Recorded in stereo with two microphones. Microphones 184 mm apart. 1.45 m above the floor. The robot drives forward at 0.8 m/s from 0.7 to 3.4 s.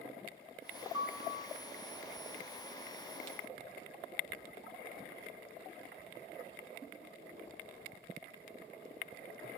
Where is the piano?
25° right (ahead or behind), 9 m.